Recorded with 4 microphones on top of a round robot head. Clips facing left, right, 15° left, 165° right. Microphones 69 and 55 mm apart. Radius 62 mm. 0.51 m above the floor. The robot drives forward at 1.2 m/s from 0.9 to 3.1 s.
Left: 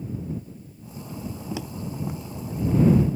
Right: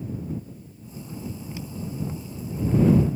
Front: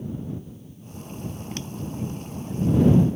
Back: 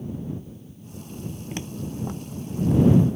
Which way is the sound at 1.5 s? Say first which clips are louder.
Left 4 dB, back 2 dB; 115° left.